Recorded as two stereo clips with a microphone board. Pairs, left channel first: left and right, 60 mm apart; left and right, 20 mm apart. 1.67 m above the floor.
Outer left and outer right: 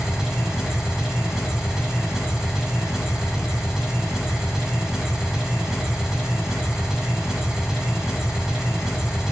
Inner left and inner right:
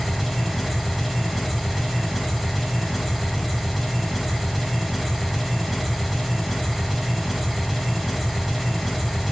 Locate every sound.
0.0 s an engine running: 10° right (ahead or behind), 3.5 m